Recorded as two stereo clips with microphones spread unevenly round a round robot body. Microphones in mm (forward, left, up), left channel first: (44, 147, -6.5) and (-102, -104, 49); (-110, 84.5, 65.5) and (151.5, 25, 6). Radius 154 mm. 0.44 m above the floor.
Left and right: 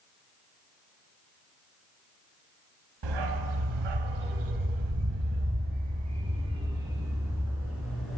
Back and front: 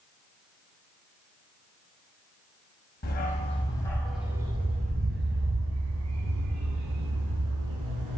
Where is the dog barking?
130° right, 1.2 m; by 8.2 s 30° right, 2 m.